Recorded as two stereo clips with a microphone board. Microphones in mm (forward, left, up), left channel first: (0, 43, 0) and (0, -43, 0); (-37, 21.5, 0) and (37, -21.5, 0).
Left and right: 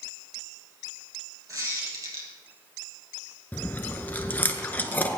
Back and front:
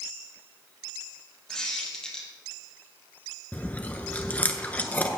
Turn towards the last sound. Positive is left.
turn(degrees=110)